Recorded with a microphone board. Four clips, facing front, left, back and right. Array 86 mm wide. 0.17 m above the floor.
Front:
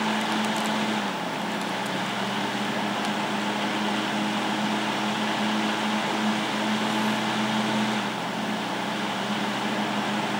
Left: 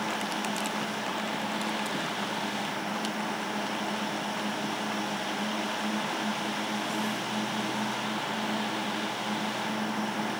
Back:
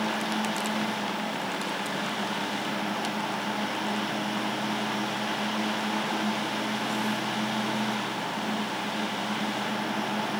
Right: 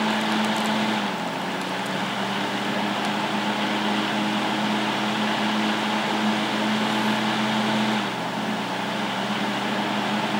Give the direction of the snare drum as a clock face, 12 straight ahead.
I don't hear a snare drum.